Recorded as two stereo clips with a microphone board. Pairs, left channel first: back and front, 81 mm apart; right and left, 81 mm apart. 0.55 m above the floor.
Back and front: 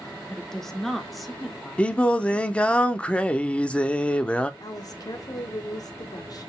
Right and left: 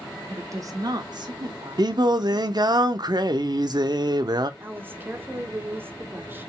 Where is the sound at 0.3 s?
105° left, 0.8 m; by 2.8 s 85° left, 2 m.